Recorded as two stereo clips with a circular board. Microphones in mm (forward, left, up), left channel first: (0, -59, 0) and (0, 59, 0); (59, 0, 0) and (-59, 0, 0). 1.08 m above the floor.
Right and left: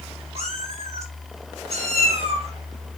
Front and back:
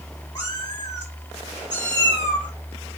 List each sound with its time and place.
0.3 s a cat meowing: 65° left, 5 m